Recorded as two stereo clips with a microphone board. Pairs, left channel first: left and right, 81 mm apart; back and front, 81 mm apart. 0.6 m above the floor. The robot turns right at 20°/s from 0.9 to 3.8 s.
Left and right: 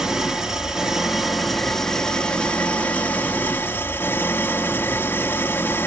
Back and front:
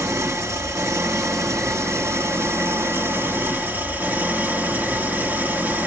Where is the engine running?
10° right, 1.1 m; by 5.9 s 50° left, 1.1 m.